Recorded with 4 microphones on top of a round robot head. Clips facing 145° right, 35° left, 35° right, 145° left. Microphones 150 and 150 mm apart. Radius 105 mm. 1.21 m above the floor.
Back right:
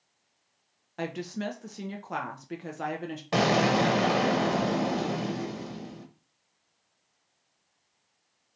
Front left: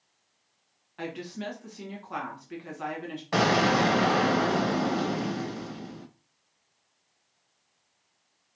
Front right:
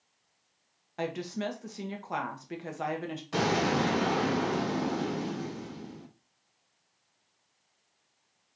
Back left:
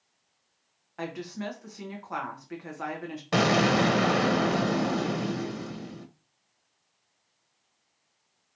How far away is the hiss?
I don't hear a hiss.